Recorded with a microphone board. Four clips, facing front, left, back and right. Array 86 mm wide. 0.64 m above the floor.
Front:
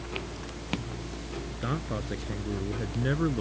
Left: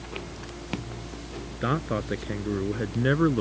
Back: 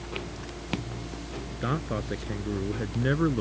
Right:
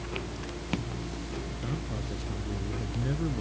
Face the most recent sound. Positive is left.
turn(degrees=105)